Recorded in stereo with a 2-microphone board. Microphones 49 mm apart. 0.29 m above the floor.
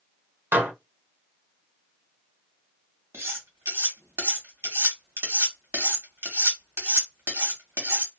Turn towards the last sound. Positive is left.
turn(degrees=-55)  # may be behind; listen again after turning